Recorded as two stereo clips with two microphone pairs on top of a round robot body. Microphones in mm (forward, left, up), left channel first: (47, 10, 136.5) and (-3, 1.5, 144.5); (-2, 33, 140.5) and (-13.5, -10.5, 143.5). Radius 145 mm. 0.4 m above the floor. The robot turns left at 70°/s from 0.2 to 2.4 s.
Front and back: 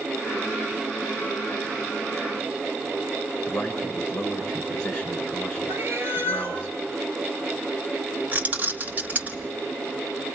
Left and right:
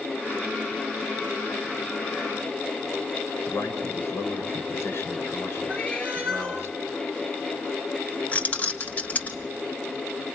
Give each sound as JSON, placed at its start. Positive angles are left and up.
{"t": 3.5, "sound": "a man speaking", "azimuth_deg": 80, "distance_m": 6.5}
{"t": 5.7, "sound": "a cat meowing", "azimuth_deg": 145, "distance_m": 2.5}
{"t": 8.3, "sound": "keys jangling", "azimuth_deg": 130, "distance_m": 1.5}